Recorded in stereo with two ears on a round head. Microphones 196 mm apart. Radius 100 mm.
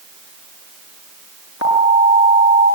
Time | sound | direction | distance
1.6 | an alarm | 70° left (ahead or behind) | 8.5 m